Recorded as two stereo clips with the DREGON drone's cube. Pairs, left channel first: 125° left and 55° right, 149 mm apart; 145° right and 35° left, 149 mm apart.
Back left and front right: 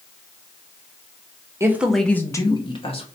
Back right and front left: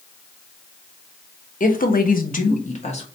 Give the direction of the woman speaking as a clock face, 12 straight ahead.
4 o'clock.